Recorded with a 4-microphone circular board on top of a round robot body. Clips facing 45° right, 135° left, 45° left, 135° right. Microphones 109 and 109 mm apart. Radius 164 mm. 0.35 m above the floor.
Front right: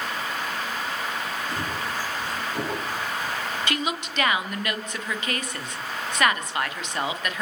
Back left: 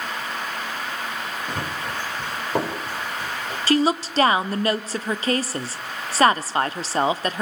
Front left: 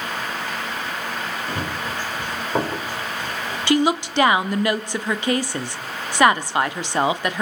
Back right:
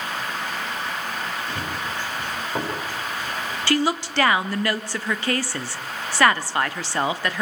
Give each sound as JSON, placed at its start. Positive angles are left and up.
{"t": 1.5, "sound": "running footsteps", "azimuth_deg": 100, "distance_m": 5.5}
{"t": 3.7, "sound": "a woman speaking", "azimuth_deg": 105, "distance_m": 1.3}